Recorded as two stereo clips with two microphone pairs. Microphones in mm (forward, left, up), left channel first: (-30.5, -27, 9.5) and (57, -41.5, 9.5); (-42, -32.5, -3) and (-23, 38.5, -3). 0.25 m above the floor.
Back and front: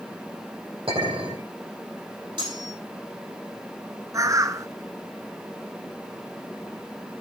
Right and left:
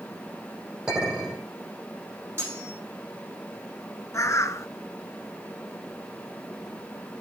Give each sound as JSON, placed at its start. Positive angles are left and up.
{"t": 0.9, "sound": "a clink", "azimuth_deg": -5, "distance_m": 7.5}
{"t": 2.4, "sound": "cutlery clinking", "azimuth_deg": 15, "distance_m": 6.5}
{"t": 4.1, "sound": "a bird", "azimuth_deg": -60, "distance_m": 0.6}